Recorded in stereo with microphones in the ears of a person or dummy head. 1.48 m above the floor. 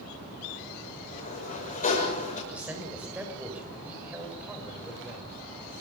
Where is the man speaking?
5° right (ahead or behind), 7 m.